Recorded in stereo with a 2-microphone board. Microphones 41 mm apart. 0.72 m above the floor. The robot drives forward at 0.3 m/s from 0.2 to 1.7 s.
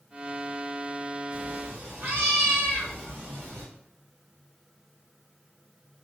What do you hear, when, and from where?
1.3 s a cat meowing: 55° right (ahead or behind), 1.6 m; by 3.7 s 50° right (ahead or behind), 1.6 m